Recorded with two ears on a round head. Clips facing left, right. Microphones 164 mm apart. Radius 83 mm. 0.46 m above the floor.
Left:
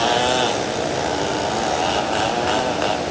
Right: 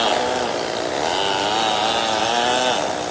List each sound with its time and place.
Only background noise.